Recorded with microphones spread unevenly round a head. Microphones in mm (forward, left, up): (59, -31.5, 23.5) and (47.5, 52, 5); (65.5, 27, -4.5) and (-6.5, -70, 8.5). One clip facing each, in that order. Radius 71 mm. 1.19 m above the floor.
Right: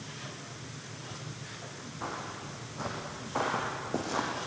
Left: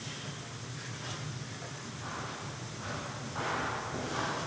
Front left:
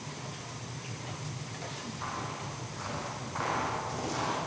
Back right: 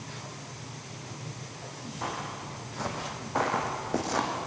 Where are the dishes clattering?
No dishes clattering in this recording.